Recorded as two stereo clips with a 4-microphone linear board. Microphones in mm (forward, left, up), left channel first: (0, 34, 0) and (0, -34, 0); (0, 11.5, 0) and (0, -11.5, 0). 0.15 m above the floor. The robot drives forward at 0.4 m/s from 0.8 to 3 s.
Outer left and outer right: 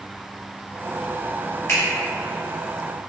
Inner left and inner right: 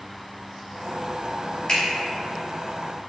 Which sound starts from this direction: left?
A finger snap, at 1.7 s.